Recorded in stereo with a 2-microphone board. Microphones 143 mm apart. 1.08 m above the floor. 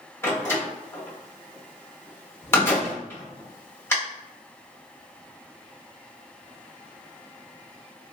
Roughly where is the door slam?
Centre.